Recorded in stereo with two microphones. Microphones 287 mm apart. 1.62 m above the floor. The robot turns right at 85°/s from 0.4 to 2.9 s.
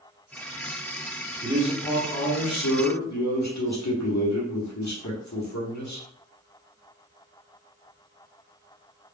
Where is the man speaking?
25° right, 0.9 m; by 6.0 s 100° left, 0.9 m.